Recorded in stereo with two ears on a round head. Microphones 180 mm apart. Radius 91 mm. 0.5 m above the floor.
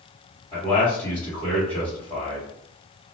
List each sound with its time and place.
0.5 s a man speaking: 10° left (ahead or behind), 1.8 m